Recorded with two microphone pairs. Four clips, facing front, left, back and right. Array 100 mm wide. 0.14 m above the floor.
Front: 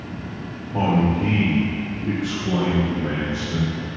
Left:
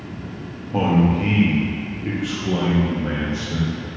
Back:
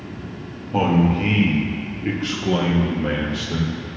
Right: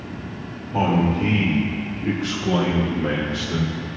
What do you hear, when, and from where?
0.7 s a man speaking: 155° left, 3 m; by 3.8 s 135° right, 3.5 m